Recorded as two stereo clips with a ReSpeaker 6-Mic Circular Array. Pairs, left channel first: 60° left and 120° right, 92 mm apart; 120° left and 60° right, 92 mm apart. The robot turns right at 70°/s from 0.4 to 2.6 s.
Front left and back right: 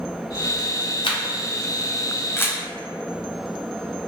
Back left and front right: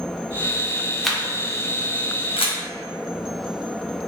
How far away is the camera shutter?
About 0.5 m.